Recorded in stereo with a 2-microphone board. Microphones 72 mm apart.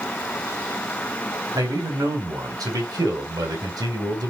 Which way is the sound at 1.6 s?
65° right (ahead or behind).